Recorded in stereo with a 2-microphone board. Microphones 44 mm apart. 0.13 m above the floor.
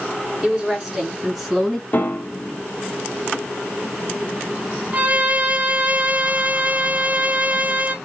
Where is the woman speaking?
15° right (ahead or behind), 1.8 m; by 1.8 s centre (ahead or behind), 2 m.